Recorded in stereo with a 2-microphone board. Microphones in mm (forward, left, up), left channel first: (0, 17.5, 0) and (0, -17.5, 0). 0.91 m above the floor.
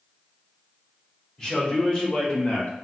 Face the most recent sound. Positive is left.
turn(degrees=50)  # may be behind; listen again after turning